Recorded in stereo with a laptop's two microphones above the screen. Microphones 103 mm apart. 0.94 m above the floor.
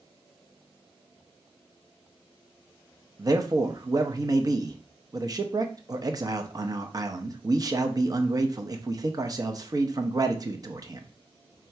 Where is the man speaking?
35° right (ahead or behind), 0.8 m.